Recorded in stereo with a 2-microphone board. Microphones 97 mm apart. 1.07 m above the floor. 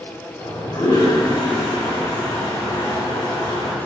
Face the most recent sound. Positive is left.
turn(degrees=50)  # may be behind; listen again after turning